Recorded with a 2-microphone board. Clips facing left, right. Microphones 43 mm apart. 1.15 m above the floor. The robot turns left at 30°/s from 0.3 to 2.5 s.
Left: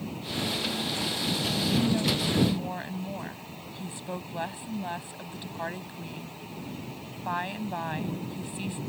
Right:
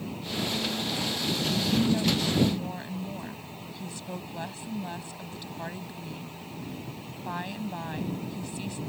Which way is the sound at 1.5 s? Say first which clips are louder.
Right 1 dB; 10° right (ahead or behind).